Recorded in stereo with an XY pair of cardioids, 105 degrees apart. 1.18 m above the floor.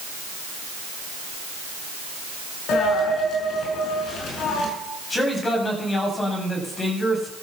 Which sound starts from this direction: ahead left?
A man speaking, at 5.1 s.